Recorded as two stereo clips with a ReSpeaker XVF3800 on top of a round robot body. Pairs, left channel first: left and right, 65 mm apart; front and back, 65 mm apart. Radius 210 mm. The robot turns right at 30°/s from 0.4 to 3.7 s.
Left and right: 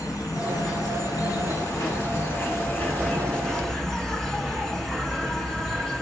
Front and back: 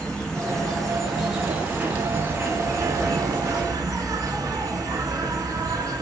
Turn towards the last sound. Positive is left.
turn(degrees=175)